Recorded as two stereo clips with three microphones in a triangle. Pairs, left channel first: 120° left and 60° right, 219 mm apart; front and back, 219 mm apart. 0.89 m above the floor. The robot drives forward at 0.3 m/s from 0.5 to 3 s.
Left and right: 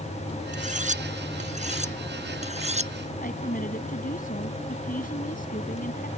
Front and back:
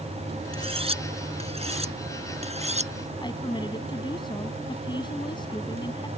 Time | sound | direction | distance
0.5 | cutlery clinking | 115° right | ?
3.2 | a woman speaking | 70° left | ?